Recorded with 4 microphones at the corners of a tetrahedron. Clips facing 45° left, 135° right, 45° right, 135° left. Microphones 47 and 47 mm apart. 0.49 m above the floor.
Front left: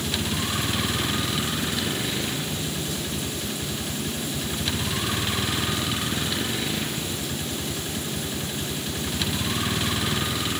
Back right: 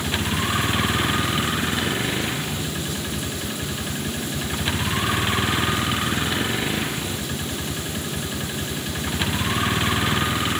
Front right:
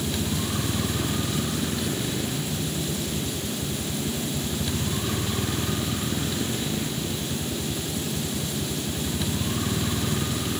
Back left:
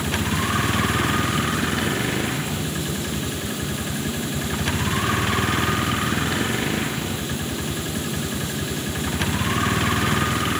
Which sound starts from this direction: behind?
A vehicle, at 0.0 s.